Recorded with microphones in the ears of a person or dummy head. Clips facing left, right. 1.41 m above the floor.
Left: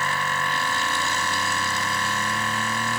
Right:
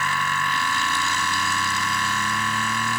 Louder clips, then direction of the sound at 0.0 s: Even; 35° left (ahead or behind).